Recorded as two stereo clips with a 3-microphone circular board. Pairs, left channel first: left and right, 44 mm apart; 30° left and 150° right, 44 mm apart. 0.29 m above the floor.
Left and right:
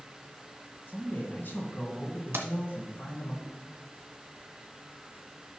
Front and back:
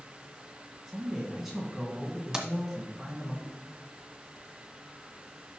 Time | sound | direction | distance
0.9 | a man speaking | 125° left | 3 m
2.3 | keys jangling | 70° right | 1.4 m